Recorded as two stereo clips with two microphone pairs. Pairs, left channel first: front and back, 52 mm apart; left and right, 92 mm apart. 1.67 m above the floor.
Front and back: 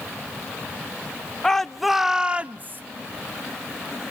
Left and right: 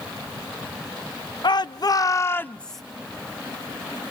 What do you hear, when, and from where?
1.4 s a shout: 80° left, 0.8 m; by 2.8 s straight behind, 0.6 m